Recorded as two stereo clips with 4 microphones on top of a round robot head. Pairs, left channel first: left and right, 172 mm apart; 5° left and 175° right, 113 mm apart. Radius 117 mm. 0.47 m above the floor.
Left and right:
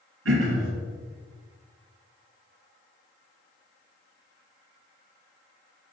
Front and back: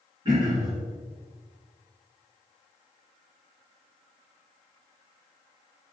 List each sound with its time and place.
0.2 s throat clearing: 110° right, 2 m